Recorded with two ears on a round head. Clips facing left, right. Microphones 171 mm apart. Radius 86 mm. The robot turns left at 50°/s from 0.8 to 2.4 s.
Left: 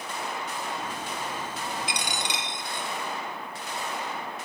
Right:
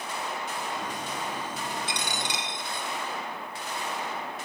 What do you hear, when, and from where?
1.9 s a dropped coin: 15° left (ahead or behind), 1.1 m; by 2.9 s 20° left (ahead or behind), 1.1 m